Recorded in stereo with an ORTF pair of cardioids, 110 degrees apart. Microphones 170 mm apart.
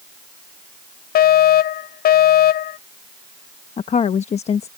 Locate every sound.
1.1 s a fire alarm: 65° left
3.8 s a woman speaking: 40° left